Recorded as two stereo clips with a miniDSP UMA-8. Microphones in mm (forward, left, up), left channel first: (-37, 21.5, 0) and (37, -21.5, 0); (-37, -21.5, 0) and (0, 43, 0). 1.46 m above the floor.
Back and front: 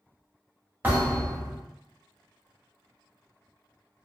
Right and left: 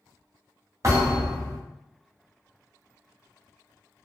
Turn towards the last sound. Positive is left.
turn(degrees=30)